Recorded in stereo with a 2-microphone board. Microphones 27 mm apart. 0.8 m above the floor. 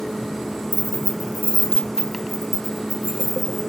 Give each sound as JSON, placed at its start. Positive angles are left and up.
{"t": 0.7, "sound": "keys jangling", "side_deg": 65, "distance_m": 0.7}